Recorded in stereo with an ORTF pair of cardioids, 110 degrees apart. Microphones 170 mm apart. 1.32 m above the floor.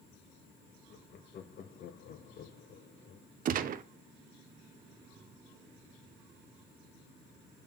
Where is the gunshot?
55° right, 0.7 m.